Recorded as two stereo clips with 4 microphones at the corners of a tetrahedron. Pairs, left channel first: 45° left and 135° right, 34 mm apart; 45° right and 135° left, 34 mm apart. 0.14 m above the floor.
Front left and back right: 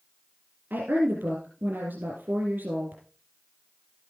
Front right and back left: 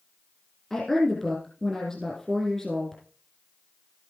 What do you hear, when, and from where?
0.7 s a woman speaking: 120° right, 3.5 m